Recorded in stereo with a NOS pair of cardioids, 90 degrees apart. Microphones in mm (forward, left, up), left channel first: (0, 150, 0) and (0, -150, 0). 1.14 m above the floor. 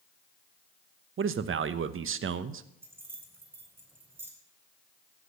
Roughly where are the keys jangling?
Ahead.